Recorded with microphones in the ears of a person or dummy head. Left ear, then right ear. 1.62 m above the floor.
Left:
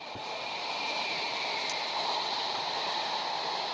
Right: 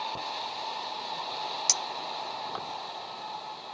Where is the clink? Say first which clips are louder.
Right 1 dB; 55° right (ahead or behind).